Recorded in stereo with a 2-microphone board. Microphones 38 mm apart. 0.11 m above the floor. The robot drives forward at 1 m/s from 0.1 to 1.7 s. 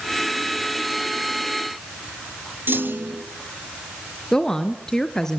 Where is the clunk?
60° right (ahead or behind), 1.7 m.